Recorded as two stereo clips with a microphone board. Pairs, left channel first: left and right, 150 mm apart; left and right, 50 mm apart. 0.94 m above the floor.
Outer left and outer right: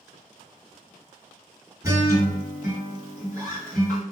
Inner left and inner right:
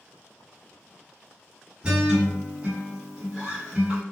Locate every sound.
1.8 s a guitar: 20° right (ahead or behind), 1.5 m